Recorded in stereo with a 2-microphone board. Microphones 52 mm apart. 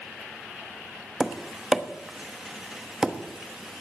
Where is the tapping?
10° right (ahead or behind), 1.1 m.